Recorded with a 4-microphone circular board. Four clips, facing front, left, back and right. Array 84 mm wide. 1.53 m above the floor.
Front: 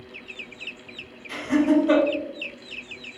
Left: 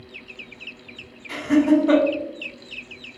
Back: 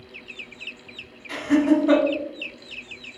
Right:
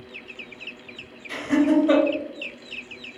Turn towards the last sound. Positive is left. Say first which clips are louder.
# left 2 dB, back 1 dB
turn(degrees=130)